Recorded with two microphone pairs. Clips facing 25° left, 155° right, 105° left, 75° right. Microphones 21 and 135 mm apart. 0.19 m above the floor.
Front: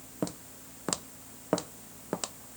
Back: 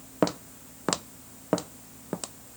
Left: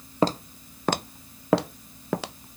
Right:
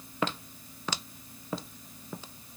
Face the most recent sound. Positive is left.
turn(degrees=95)